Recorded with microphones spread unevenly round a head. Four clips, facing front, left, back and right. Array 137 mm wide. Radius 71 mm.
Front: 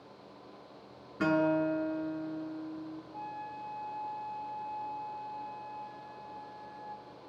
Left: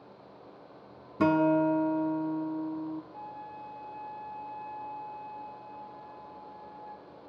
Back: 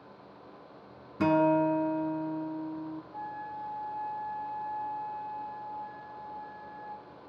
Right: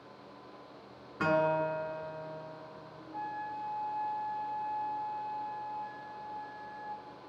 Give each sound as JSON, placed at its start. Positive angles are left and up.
{"t": 1.2, "sound": "a guitar", "azimuth_deg": 110, "distance_m": 1.4}
{"t": 3.1, "sound": "a flute", "azimuth_deg": -125, "distance_m": 2.5}